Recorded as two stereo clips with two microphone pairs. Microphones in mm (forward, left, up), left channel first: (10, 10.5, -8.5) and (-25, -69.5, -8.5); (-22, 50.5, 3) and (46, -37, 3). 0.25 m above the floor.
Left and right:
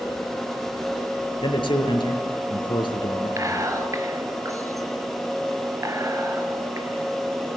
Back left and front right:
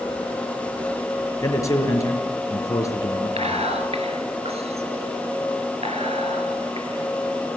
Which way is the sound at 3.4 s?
65° right.